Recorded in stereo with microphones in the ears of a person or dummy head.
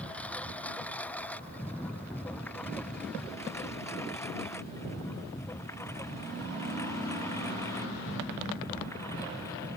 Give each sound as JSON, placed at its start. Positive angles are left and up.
{"t": 0.0, "sound": "a lawn mower", "side_deg": 10}